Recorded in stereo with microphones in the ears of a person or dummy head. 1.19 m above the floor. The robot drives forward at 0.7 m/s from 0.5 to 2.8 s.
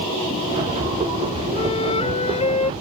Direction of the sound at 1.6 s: 35° left (ahead or behind).